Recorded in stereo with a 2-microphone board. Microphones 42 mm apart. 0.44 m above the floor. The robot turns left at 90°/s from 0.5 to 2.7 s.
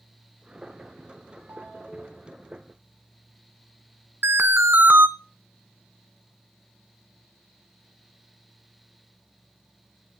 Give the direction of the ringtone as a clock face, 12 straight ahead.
4 o'clock.